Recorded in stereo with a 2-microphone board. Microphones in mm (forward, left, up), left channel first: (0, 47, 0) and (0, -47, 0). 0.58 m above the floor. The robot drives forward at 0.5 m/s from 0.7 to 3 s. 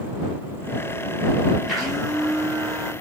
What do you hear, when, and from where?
1.7 s a blender: centre (ahead or behind), 4.5 m